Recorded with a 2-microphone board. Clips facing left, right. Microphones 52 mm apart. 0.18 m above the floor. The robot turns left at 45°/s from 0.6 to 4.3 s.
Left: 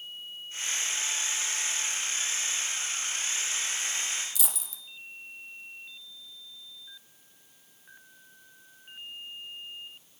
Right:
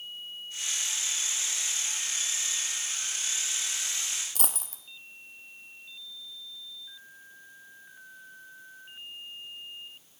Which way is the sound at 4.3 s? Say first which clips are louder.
Right 3 dB; 50° right (ahead or behind).